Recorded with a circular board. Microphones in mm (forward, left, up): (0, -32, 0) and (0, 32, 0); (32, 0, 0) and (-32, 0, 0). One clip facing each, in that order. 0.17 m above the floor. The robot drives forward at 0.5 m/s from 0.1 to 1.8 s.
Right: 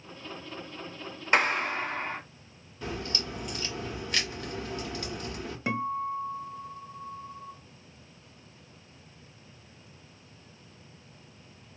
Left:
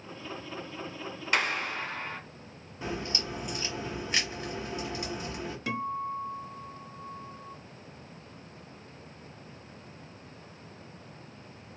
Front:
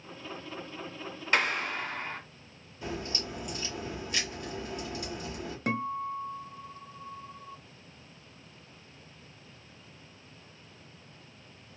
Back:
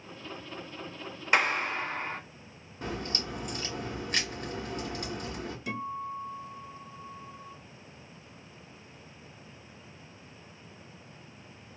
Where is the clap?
125° right, 1.5 m; by 2.2 s 135° right, 1.6 m.